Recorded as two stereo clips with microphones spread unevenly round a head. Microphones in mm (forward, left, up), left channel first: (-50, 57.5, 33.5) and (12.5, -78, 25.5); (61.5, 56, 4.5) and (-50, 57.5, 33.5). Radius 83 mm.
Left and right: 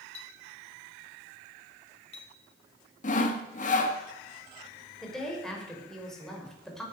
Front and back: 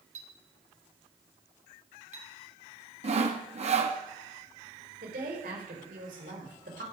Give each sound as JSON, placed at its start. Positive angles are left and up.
{"t": 0.1, "sound": "a clink", "azimuth_deg": 165, "distance_m": 3.5}
{"t": 3.0, "sound": "sawing", "azimuth_deg": 150, "distance_m": 2.5}
{"t": 5.0, "sound": "a woman speaking", "azimuth_deg": -160, "distance_m": 5.5}